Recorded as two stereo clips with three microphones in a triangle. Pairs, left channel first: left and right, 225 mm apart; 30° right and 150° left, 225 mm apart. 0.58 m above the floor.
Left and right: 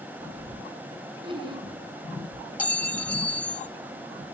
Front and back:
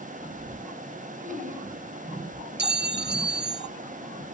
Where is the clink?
170° left, 0.5 m.